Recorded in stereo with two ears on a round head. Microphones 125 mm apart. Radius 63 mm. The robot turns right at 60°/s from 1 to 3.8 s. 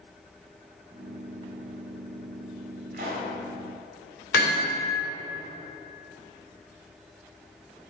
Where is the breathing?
I don't hear breathing.